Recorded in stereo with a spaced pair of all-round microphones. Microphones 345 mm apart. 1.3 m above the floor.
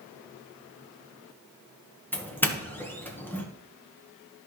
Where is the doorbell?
5° left (ahead or behind), 1.2 m.